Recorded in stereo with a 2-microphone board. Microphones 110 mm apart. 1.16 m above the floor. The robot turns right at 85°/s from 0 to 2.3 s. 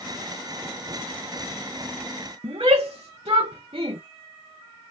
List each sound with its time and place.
2.4 s a shout: 55° right (ahead or behind), 0.9 m